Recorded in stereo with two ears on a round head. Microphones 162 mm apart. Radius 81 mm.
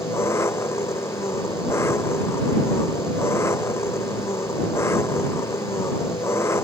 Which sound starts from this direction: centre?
An engine running, at 0.0 s.